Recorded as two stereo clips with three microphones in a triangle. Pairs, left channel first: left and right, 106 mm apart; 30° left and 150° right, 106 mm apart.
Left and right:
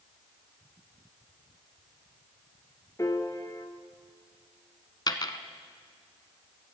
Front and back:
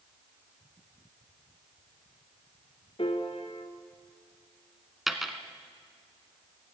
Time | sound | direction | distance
3.0 | a piano | 35° left | 1.2 m
5.1 | a dropped coin | 125° left | 0.9 m